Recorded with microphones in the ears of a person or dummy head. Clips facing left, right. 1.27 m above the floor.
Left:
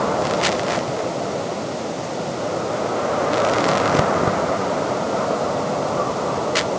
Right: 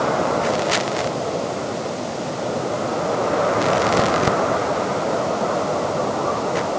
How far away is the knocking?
I don't hear knocking.